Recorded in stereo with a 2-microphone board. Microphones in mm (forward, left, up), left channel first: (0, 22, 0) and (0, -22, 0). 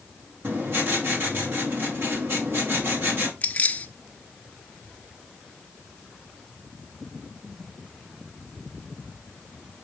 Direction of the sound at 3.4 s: 35° left (ahead or behind).